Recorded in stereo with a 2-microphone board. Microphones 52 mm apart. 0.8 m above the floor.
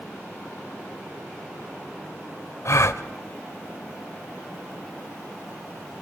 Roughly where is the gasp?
Left.